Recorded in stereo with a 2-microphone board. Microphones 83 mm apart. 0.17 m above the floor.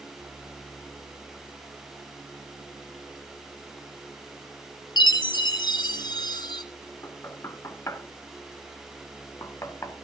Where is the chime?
60° left (ahead or behind), 1.0 m.